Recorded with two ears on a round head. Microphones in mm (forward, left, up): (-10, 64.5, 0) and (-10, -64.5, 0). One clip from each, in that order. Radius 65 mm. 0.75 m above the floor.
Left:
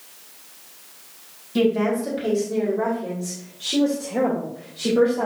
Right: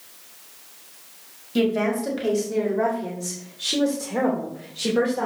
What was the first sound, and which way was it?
A woman speaking, 20° right (ahead or behind).